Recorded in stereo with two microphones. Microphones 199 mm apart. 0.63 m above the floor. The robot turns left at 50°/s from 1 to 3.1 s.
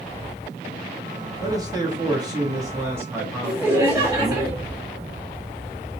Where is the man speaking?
15° right (ahead or behind), 0.9 m; by 4.4 s 10° right (ahead or behind), 0.9 m.